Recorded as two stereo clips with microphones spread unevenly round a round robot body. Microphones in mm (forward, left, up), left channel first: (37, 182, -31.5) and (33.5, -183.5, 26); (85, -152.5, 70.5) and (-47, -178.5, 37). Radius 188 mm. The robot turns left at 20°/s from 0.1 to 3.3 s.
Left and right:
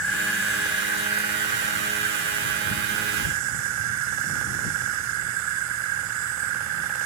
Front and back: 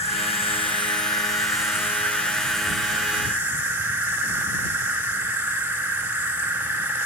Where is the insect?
35° right; by 7.1 s 100° right.